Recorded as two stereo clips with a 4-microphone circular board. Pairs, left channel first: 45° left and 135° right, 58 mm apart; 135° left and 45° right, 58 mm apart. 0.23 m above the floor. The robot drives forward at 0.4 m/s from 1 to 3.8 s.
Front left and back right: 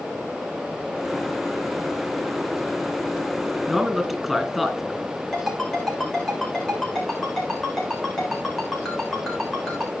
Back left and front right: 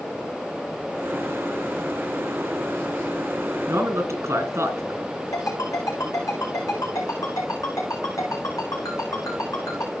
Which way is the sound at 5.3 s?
130° left.